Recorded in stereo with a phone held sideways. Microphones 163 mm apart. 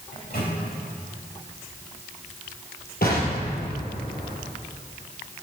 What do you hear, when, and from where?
0.1 s a microwave: 70° left (ahead or behind), 3 m
3.0 s an explosion: 70° left (ahead or behind), 3.5 m